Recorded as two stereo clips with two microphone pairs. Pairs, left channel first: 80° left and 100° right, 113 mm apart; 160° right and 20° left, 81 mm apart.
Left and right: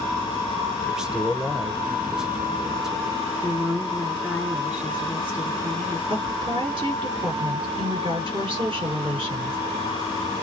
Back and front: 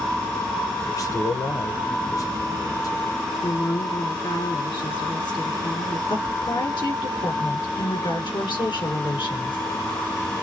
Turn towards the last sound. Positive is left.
turn(degrees=-140)